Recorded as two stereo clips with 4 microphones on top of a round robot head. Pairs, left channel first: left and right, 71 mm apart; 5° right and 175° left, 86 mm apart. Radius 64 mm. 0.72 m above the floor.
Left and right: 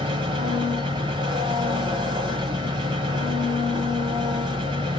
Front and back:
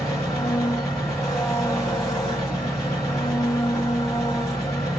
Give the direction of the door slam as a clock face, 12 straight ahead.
I don't hear a door slam.